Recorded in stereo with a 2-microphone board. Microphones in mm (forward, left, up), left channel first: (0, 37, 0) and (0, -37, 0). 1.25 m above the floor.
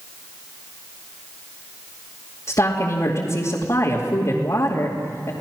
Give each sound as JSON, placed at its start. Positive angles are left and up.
{"t": 2.5, "sound": "a woman speaking", "side_deg": 45, "distance_m": 2.5}